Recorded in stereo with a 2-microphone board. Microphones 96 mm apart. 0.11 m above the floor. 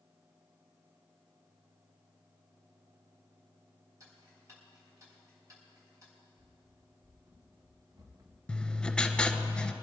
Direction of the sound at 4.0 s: 30° right (ahead or behind).